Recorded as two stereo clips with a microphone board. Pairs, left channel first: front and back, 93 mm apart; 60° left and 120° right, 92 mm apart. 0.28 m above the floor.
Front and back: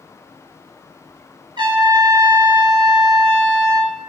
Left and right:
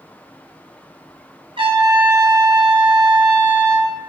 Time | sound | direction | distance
1.6 | a trumpet | 140° right | 0.9 m